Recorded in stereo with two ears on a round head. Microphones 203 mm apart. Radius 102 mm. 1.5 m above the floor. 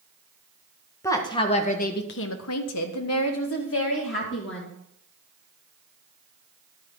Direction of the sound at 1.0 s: 15° left (ahead or behind).